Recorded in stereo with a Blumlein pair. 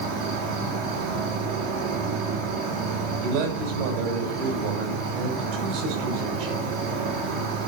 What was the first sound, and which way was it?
An insect, 30° right.